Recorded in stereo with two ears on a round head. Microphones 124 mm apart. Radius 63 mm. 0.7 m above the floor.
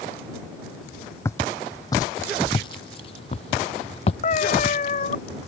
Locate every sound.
1.2 s footsteps: 20° left (ahead or behind); by 4.1 s 45° left (ahead or behind)
4.2 s a cat meowing: 50° left (ahead or behind)